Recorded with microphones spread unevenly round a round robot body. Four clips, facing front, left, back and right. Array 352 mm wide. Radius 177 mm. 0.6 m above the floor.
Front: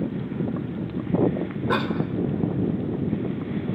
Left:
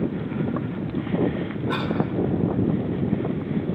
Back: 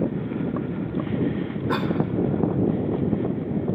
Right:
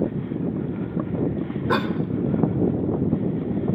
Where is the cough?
65° right, 2 m.